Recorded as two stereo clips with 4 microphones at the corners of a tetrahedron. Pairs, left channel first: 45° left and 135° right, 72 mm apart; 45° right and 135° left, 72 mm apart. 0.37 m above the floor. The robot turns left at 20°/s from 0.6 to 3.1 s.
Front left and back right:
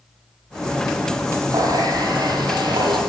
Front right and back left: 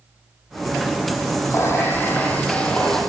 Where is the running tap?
100° right, 9 m; by 3.0 s 130° right, 9 m.